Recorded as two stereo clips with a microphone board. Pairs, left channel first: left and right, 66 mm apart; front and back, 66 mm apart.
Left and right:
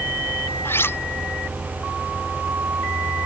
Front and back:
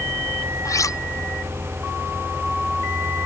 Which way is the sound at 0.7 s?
35° left.